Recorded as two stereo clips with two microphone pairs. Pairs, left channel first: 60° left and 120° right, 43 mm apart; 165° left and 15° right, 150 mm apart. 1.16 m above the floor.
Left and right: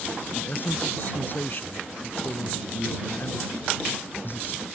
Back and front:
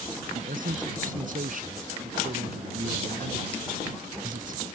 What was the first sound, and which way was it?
A man speaking, 15° left.